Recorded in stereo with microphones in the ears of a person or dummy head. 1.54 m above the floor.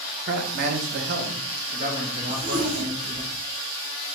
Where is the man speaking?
45° right (ahead or behind), 0.8 m; by 3.2 s 30° right (ahead or behind), 1.7 m.